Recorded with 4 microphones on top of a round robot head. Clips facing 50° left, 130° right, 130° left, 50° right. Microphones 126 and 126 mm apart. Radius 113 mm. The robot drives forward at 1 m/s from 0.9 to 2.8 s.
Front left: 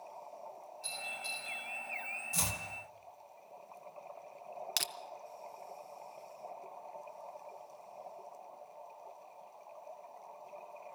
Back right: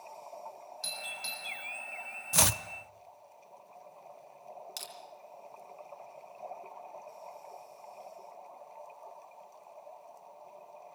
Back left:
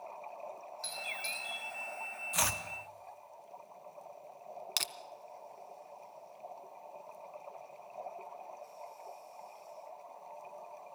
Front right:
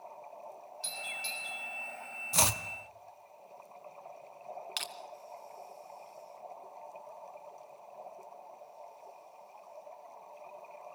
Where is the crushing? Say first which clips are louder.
Front left 3 dB, front right 1 dB; 75° left, 0.6 m.